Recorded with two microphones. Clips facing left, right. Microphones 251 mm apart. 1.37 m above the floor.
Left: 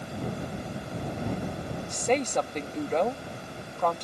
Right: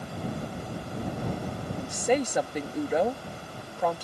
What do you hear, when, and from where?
1.9 s a woman speaking: 10° right (ahead or behind)